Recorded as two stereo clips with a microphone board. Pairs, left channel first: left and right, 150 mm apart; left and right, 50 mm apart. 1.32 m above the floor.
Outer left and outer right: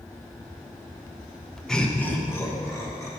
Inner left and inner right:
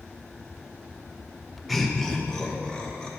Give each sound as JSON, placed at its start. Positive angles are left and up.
{"t": 1.7, "sound": "laughter", "side_deg": 5, "distance_m": 0.5}